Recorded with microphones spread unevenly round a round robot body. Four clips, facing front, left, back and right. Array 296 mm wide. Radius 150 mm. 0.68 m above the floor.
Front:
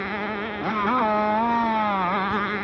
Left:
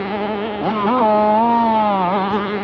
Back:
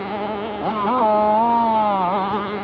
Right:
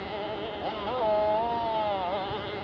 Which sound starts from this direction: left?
A motorcycle, at 0.0 s.